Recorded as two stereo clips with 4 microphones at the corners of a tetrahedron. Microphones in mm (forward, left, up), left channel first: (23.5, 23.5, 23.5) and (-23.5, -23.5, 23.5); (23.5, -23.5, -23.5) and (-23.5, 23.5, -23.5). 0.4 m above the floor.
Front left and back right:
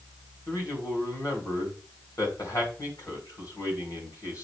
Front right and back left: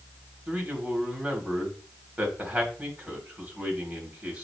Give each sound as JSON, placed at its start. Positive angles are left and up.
{"t": 0.5, "sound": "a man speaking", "azimuth_deg": 70, "distance_m": 2.5}